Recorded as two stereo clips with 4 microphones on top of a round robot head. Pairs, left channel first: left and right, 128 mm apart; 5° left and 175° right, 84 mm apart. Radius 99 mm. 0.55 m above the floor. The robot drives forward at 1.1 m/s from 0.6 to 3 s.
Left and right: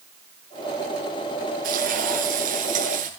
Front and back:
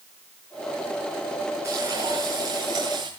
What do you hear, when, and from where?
1.6 s frying: 110° right, 7 m; by 3.1 s 120° right, 7.5 m